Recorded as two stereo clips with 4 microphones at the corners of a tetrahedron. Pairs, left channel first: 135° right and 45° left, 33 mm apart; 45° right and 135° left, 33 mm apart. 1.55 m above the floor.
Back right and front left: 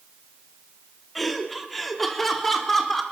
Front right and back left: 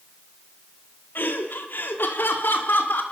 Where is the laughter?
45° right, 3 m; by 3.0 s 50° right, 4 m.